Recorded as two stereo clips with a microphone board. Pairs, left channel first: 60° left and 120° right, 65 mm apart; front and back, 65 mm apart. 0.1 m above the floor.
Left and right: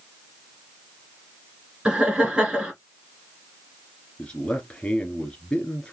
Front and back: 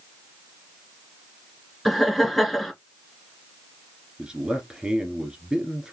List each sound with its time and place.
1.9 s laughter: 80° right, 1.4 m
4.2 s a man speaking: 115° left, 1.5 m